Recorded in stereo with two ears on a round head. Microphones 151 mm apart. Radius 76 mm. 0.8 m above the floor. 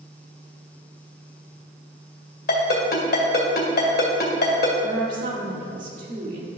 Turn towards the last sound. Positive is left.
turn(degrees=-50)  # may be behind; listen again after turning